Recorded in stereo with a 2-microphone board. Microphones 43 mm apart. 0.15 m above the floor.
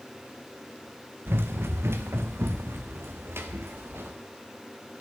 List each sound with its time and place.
1.3 s running footsteps: 65° right (ahead or behind), 1.4 m; by 4.2 s 70° right (ahead or behind), 3.5 m